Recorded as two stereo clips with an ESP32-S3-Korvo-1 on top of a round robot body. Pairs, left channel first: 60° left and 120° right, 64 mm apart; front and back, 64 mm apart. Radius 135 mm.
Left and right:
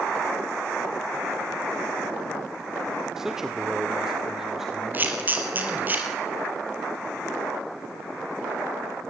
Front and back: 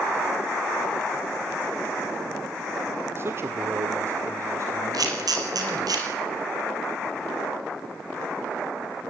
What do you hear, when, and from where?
3.2 s a man speaking: 160° left, 1.8 m; by 5.9 s 155° left, 4 m
4.9 s a camera shutter: straight behind, 5 m